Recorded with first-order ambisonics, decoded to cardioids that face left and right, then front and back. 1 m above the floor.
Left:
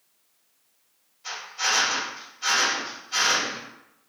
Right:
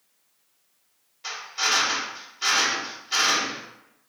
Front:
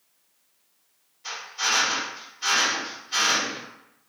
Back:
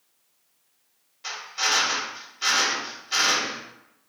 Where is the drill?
135° right, 1.8 m.